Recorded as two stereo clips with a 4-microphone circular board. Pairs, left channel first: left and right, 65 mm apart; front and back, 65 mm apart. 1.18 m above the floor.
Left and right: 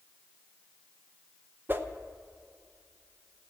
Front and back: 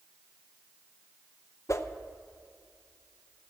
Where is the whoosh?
35° right, 0.7 m.